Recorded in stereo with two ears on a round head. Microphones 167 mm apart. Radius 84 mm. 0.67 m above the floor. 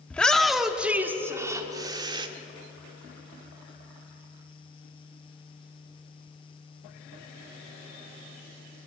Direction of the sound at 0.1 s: 5° left (ahead or behind).